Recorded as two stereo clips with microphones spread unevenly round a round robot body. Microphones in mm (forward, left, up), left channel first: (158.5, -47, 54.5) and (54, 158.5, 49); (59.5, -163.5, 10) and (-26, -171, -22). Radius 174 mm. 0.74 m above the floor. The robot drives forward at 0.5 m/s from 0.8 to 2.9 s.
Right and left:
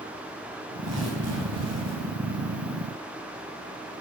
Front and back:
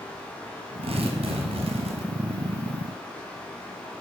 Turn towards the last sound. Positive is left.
turn(degrees=-170)